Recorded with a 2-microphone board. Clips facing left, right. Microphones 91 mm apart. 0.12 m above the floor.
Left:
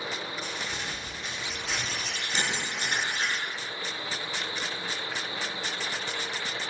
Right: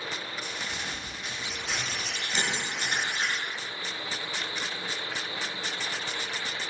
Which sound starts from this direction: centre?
Crumpling, at 0.4 s.